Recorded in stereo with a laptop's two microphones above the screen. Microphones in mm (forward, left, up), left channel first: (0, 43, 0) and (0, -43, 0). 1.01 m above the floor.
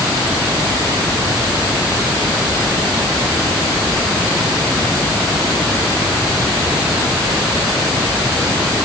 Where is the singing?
No singing in this recording.